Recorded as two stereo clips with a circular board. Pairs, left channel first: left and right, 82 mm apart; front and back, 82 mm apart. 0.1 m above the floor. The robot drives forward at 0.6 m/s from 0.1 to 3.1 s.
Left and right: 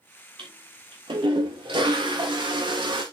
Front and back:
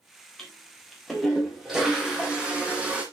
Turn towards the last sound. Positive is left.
turn(degrees=-105)